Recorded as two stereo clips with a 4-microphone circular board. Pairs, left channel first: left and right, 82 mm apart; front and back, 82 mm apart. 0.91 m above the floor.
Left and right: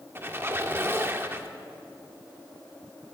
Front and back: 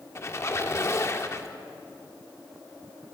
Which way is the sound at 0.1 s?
40° right.